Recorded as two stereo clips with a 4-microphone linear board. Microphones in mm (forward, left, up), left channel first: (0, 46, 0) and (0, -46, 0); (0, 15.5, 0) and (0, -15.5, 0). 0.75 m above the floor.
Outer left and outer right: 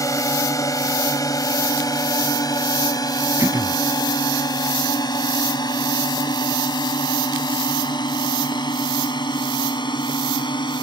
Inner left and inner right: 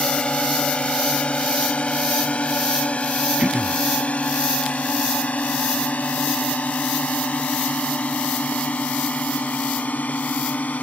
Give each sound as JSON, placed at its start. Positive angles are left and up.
{"t": 0.0, "sound": "a drone", "side_deg": 40}
{"t": 3.4, "sound": "throat clearing", "side_deg": -35}